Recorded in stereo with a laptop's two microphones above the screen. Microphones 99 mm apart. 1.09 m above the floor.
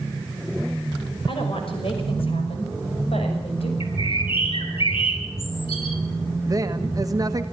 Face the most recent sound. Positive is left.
turn(degrees=-40)  # may be behind; listen again after turning